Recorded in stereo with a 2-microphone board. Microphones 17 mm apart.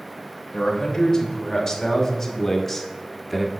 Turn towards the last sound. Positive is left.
turn(degrees=0)  # may be behind; listen again after turning